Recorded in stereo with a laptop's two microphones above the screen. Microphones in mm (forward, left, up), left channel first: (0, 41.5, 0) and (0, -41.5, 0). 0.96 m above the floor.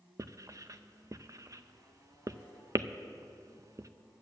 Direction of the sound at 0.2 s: 40° right (ahead or behind).